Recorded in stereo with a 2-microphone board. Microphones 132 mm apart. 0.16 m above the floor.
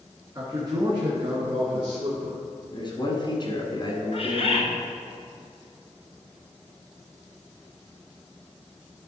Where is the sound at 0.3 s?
30° right (ahead or behind), 1.7 m; by 2.4 s 55° right (ahead or behind), 2 m.